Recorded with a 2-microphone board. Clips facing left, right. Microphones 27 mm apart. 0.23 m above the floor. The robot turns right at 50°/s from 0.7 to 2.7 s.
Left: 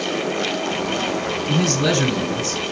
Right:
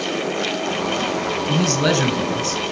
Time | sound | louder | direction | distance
1.5 | a man speaking | even | 10° right (ahead or behind) | 1.6 m